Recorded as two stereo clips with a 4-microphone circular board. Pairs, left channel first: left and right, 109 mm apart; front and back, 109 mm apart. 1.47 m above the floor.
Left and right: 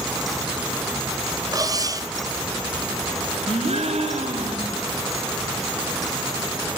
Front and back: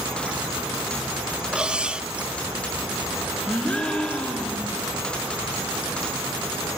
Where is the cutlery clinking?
105° right, 0.8 m.